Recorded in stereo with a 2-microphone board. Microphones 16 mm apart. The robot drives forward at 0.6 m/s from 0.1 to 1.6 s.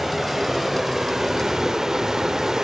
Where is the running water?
15° right (ahead or behind), 1.3 m; by 2.6 s 30° right (ahead or behind), 0.6 m.